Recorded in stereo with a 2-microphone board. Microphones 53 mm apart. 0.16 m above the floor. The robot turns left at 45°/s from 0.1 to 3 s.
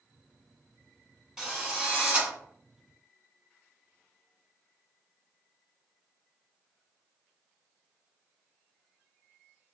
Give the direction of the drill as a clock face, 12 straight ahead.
12 o'clock.